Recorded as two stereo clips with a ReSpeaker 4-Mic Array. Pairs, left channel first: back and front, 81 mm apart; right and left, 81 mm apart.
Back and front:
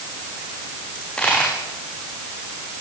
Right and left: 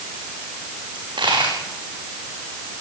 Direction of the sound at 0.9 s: 105° left.